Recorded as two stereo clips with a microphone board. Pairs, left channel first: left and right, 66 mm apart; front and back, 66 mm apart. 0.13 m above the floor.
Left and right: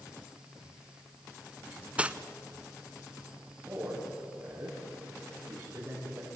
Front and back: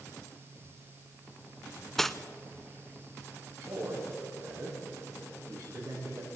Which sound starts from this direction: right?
Cutlery clinking, at 2.0 s.